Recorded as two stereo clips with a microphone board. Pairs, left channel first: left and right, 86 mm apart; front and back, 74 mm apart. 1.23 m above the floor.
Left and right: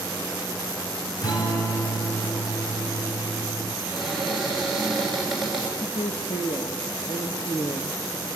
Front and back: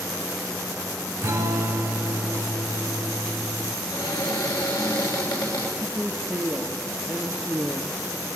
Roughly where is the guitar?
Behind left.